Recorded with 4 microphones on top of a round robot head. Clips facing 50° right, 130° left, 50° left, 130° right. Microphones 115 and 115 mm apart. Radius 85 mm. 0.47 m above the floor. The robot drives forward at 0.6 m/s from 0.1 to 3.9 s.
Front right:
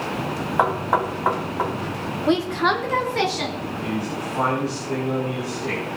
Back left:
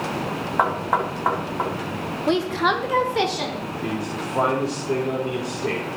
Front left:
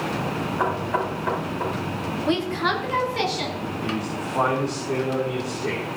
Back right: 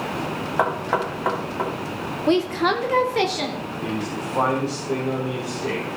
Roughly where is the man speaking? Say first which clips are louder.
Front right 1 dB, back right 2 dB; behind left.